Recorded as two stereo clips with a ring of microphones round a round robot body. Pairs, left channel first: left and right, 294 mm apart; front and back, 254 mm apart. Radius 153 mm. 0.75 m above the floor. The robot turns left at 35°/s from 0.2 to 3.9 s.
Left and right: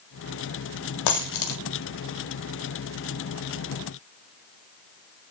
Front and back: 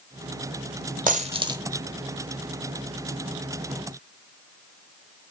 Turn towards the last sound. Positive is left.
turn(degrees=20)